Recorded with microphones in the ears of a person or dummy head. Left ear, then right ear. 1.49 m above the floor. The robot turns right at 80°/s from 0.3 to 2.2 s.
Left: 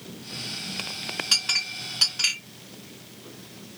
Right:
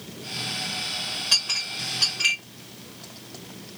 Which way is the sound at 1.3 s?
15° left (ahead or behind).